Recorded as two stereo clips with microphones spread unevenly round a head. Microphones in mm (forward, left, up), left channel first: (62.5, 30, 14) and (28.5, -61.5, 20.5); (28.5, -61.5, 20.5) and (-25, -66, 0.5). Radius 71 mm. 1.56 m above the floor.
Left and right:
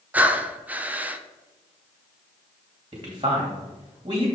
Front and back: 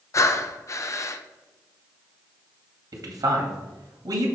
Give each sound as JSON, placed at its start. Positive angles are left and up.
{"t": 0.1, "sound": "breathing", "azimuth_deg": -35, "distance_m": 0.7}
{"t": 2.9, "sound": "a man speaking", "azimuth_deg": -170, "distance_m": 2.0}